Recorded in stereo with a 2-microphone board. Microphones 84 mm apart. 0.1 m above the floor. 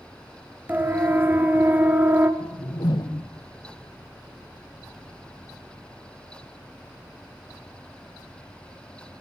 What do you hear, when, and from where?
0.7 s a siren: 20° right (ahead or behind), 2.5 m
2.4 s a whoosh: 70° left (ahead or behind), 1.6 m